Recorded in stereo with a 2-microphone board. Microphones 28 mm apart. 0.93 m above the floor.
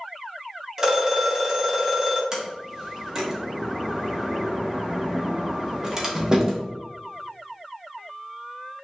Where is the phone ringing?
25° right (ahead or behind), 1.1 m.